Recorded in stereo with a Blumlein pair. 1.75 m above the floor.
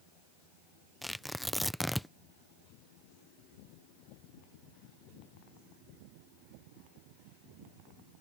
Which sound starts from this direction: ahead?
Tearing paper, at 1.0 s.